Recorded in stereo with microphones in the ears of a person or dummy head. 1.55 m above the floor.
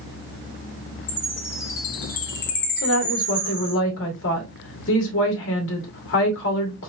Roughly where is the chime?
Left.